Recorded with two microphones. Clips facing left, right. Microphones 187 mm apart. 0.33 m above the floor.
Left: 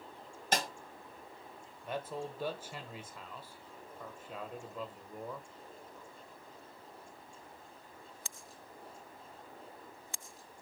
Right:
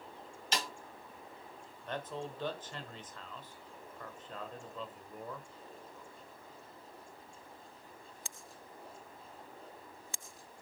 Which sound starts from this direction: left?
A snare drum, at 0.5 s.